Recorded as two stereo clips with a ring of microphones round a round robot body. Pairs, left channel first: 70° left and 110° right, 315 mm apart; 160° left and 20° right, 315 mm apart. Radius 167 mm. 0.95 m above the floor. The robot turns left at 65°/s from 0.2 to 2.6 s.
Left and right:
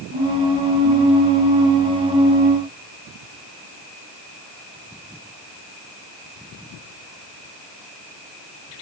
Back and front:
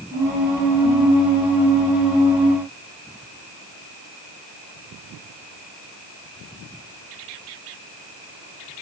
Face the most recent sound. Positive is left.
No sound to turn to.